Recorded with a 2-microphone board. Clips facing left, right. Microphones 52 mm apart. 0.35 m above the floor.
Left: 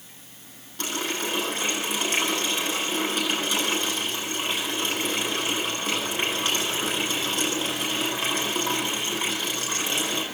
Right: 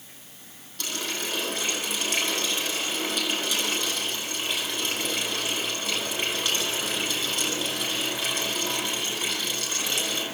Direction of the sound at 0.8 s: 20° left (ahead or behind).